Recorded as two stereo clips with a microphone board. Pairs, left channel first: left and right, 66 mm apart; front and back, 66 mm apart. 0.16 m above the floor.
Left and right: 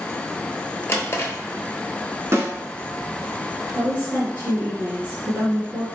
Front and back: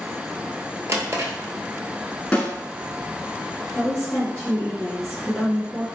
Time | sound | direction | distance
0.9 | a drawer | 135° left | 0.6 m
2.3 | a snare drum | 70° right | 1.1 m
3.8 | a woman speaking | 65° right | 2.0 m